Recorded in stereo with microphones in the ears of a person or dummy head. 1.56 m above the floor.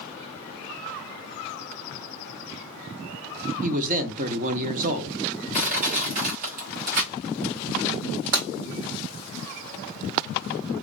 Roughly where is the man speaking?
Right.